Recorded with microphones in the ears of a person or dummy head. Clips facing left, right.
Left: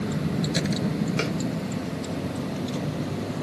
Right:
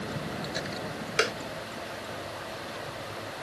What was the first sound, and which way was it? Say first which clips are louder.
A vehicle: left 8 dB; 35° left (ahead or behind).